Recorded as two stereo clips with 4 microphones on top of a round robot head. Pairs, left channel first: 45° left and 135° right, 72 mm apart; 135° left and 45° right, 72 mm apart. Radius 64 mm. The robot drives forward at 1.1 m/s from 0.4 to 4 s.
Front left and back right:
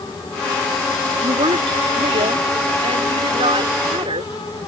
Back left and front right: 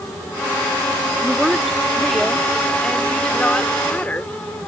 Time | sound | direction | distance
1.2 | a woman speaking | 130° right | ?